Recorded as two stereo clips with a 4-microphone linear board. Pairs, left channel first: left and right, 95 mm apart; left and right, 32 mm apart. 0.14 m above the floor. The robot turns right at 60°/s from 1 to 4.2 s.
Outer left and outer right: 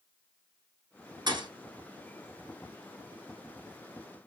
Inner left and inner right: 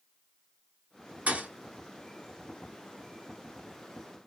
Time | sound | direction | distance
1.3 | a thud | 50° right (ahead or behind) | 0.8 m